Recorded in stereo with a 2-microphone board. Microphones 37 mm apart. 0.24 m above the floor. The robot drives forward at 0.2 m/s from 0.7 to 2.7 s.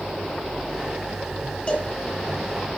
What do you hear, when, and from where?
1.7 s a cowbell: 35° left (ahead or behind), 5.5 m